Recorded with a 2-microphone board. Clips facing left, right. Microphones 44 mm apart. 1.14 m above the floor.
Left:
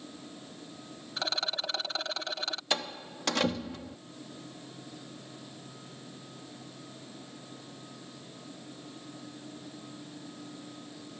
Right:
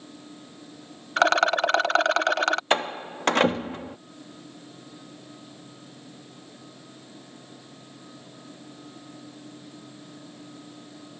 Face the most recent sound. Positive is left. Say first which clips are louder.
# right 9 dB
turn(degrees=-40)  # may be behind; listen again after turning